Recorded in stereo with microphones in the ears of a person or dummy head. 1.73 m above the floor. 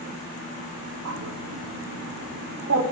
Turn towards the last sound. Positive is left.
turn(degrees=-85)